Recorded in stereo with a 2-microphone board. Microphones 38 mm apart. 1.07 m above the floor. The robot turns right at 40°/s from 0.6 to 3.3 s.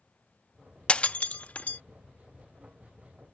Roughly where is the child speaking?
No child speaking in this recording.